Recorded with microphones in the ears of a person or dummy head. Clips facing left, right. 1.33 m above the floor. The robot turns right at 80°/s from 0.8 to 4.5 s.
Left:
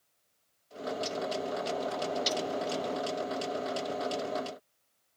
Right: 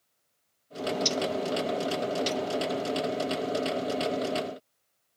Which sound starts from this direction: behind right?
A bird, at 0.8 s.